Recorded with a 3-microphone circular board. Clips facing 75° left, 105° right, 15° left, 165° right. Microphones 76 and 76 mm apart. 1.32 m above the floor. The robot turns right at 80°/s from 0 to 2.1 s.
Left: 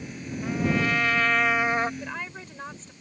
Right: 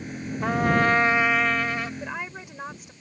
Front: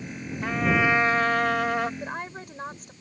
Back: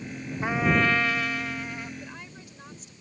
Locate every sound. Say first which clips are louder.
0.4 s a trumpet: right 4 dB, even; 95° right; by 1.9 s 25° left
2.0 s a woman speaking: right 2 dB, front 8 dB; 35° right; by 2.9 s 25° right